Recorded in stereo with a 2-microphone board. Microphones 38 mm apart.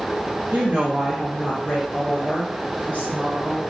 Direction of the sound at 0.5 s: 45° right (ahead or behind).